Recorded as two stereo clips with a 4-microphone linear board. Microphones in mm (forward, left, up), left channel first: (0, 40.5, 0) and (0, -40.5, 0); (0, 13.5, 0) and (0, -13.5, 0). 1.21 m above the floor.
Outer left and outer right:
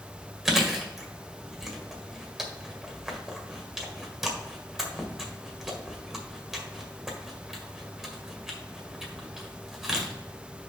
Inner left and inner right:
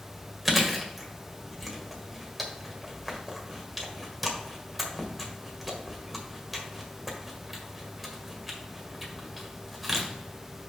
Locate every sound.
0.5 s chewing: 5° right (ahead or behind), 1.7 m